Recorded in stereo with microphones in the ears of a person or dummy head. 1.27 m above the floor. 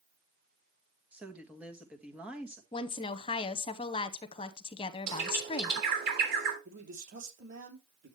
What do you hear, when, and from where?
1.1 s a woman speaking: 5° right (ahead or behind), 1.6 m
2.7 s a woman speaking: 30° left (ahead or behind), 0.7 m
5.1 s a bird: 55° right (ahead or behind), 3.5 m
6.7 s a man speaking: 55° right (ahead or behind), 3.5 m